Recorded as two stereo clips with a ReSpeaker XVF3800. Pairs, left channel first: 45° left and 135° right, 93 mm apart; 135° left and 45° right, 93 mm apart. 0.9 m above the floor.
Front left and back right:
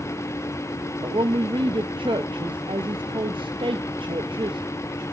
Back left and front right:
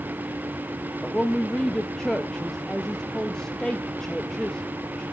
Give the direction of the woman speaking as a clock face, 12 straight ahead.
5 o'clock.